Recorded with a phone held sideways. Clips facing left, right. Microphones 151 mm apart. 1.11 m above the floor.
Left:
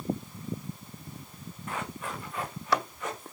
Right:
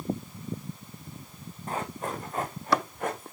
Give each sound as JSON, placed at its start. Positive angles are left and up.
{"t": 1.7, "sound": "running footsteps", "side_deg": -35, "distance_m": 4.0}